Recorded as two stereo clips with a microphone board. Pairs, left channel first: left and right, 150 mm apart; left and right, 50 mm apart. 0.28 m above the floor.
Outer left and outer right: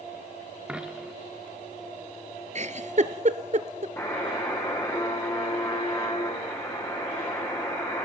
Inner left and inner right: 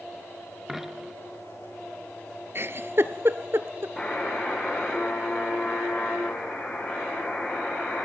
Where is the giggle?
50° right (ahead or behind), 1.0 m.